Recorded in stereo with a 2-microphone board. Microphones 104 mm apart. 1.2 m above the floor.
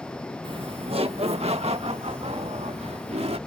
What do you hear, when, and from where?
0.4 s laughter: 50° right (ahead or behind); by 3.4 s 80° right